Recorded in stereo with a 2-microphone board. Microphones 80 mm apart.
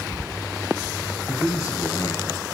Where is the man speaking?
45° left (ahead or behind), 2.5 m.